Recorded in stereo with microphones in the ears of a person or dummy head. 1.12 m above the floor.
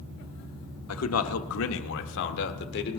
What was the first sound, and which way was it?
A man speaking, 80° left.